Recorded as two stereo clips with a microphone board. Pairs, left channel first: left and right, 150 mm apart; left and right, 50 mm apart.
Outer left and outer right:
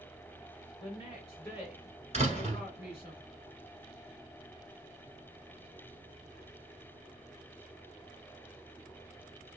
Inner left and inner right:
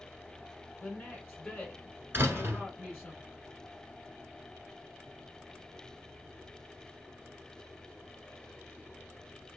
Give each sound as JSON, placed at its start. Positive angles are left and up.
{"t": 0.8, "sound": "a woman speaking", "side_deg": 35, "distance_m": 1.7}
{"t": 2.1, "sound": "a door slam", "side_deg": -45, "distance_m": 1.6}